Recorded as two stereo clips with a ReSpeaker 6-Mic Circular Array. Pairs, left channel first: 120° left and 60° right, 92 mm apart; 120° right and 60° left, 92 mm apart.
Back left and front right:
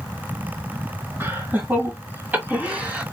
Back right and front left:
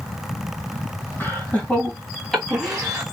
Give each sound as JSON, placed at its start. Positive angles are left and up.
{"t": 1.2, "sound": "laughter", "azimuth_deg": -80, "distance_m": 1.8}